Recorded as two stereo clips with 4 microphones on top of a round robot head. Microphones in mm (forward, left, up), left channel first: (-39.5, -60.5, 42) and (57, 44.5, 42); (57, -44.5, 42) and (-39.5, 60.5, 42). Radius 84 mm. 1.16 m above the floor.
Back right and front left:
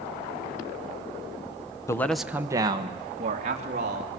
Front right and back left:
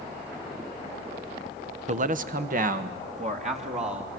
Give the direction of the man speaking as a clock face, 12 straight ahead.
7 o'clock.